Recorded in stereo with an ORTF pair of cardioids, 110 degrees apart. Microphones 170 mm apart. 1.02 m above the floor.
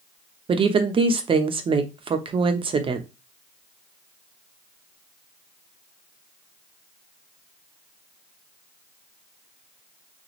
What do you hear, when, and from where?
0.5 s a woman speaking: 35° right, 0.8 m